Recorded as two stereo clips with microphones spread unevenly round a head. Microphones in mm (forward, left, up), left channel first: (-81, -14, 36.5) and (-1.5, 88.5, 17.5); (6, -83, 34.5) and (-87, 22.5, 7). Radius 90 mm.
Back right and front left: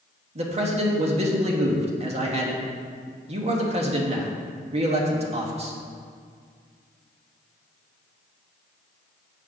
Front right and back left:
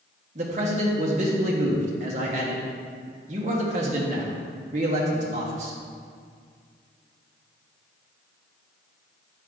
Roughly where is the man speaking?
Left.